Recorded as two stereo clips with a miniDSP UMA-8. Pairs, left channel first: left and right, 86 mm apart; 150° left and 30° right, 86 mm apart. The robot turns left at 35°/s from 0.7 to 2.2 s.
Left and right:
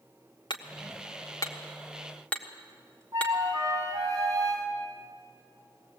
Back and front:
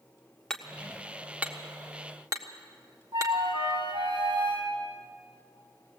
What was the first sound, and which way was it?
Hammering, 70° left.